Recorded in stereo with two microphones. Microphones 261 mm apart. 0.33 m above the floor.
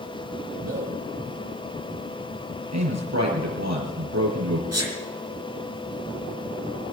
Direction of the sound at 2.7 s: 80° right.